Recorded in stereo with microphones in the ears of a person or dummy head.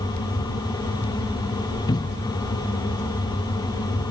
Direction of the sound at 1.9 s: 25° left (ahead or behind).